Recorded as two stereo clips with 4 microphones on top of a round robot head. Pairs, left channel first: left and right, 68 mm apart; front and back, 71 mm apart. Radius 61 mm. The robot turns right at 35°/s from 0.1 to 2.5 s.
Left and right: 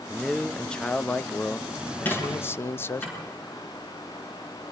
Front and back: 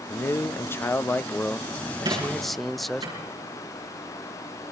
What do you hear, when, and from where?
0.1 s a man speaking: straight ahead, 0.6 m; by 3.0 s 85° left, 0.6 m
2.0 s a squeak: 150° left, 8.5 m; by 3.2 s 165° left, 8.5 m